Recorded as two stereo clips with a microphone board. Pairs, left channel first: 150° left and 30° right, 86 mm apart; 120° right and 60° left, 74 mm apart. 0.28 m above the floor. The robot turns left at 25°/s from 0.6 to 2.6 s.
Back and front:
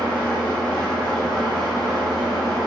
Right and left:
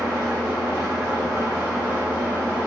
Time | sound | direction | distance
0.0 | an engine running | 105° left | 1.1 m